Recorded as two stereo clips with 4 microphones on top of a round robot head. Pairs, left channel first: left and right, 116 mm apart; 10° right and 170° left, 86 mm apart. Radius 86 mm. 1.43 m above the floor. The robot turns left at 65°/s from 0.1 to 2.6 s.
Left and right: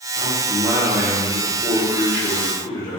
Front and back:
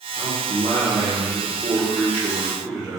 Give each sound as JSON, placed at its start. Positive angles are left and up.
{"t": 0.2, "sound": "a man speaking", "azimuth_deg": -120, "distance_m": 1.0}